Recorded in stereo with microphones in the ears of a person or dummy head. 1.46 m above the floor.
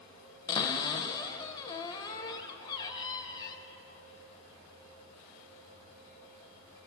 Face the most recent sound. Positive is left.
turn(degrees=20)  # may be behind; listen again after turning